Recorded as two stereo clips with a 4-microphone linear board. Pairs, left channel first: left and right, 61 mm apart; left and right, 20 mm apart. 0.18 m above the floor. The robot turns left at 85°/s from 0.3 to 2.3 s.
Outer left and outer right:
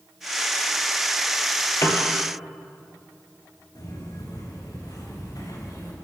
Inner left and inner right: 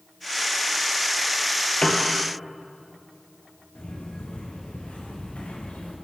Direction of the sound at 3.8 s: 75° left (ahead or behind).